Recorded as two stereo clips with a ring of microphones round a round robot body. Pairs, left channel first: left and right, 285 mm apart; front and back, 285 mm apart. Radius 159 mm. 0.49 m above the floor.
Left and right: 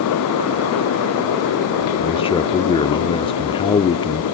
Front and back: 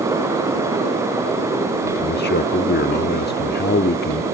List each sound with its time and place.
2.0 s a man speaking: 30° left